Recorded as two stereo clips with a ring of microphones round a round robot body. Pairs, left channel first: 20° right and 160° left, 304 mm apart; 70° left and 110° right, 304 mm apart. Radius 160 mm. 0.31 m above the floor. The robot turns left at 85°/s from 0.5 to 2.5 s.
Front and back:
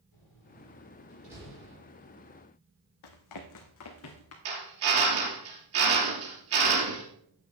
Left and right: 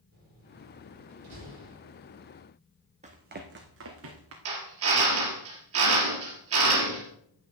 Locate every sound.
0.1 s a door slam: 50° right, 5.5 m; by 1.8 s 160° right, 5.5 m
3.0 s running footsteps: 45° right, 1.2 m; by 4.3 s 70° right, 2 m
4.5 s a drill: 160° right, 3 m